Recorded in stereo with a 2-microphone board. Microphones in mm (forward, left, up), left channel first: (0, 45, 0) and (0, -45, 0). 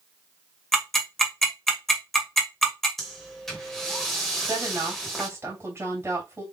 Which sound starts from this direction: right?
A woman speaking, at 4.5 s.